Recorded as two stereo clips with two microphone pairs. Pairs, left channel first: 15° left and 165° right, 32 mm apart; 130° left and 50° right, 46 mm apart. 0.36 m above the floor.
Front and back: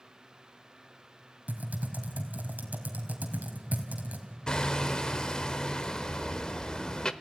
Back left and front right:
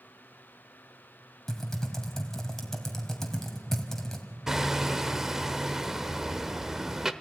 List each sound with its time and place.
1.5 s typing on a keyboard: 150° right, 2.5 m
4.5 s hammering: 20° left, 0.9 m